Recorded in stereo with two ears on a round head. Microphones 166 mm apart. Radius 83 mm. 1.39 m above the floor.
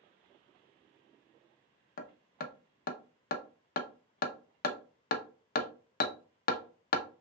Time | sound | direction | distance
2.0 | hammering | 50° left (ahead or behind) | 0.8 m